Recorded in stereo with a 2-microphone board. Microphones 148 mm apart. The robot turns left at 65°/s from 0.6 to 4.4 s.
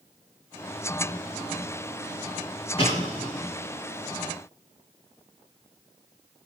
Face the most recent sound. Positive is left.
turn(degrees=-65)